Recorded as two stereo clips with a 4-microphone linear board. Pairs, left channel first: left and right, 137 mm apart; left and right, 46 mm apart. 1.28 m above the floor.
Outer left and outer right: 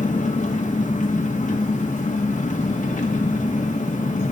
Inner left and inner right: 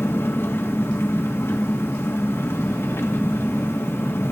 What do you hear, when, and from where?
0.0 s an engine running: 65° left (ahead or behind), 1.7 m